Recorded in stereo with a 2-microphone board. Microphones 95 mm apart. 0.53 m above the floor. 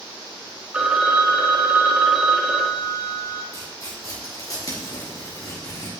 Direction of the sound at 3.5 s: 35° left (ahead or behind).